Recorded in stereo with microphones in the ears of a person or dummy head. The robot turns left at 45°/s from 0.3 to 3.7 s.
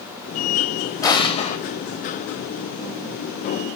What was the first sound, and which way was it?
An explosion, 15° left (ahead or behind).